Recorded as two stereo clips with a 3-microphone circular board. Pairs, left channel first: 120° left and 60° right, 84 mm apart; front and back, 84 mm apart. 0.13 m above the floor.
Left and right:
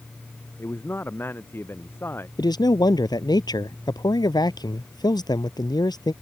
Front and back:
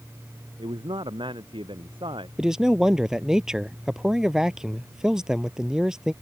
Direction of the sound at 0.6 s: 175° right.